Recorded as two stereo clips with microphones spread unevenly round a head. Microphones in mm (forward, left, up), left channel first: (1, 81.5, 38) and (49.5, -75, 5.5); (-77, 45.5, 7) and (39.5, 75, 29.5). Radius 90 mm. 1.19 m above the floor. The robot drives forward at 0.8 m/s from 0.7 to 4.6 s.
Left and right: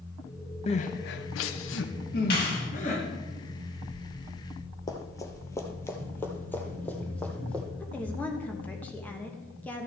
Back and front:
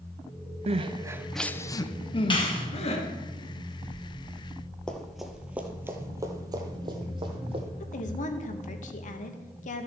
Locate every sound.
0.7 s crying: 55° left, 0.6 m; by 3.0 s 160° left, 1.6 m
2.3 s a clap: 145° left, 2.5 m; by 2.7 s 150° left, 2.5 m
4.9 s running footsteps: 100° left, 1.3 m; by 7.6 s 30° left, 2 m
7.8 s a woman speaking: 170° right, 1.2 m